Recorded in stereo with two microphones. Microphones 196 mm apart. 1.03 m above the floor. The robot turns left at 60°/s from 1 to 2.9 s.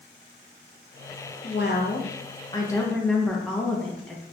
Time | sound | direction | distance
1.4 | a woman speaking | 95° left | 0.6 m